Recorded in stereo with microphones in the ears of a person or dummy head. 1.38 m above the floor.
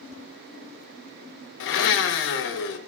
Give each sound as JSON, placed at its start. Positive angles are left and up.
{"t": 1.6, "sound": "a blender", "side_deg": 65, "distance_m": 0.6}